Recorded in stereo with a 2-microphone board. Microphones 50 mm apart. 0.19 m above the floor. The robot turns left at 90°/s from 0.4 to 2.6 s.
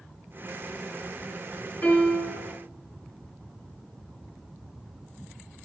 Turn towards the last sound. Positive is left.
turn(degrees=60)